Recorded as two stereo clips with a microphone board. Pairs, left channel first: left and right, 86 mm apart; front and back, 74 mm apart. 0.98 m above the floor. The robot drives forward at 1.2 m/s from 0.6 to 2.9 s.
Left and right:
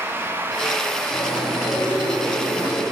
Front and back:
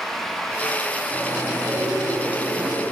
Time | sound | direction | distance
1.1 | chewing | 95° left | 8.5 m